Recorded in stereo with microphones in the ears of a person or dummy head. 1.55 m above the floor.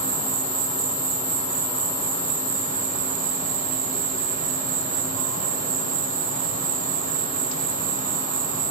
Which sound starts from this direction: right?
An insect, at 0.0 s.